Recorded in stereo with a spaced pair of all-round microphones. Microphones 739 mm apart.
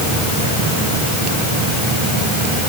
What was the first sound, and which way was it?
Only background noise.